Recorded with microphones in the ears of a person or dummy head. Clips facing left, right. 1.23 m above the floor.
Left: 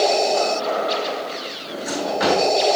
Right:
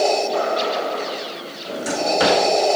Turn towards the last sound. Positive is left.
turn(degrees=-50)  # may be behind; listen again after turning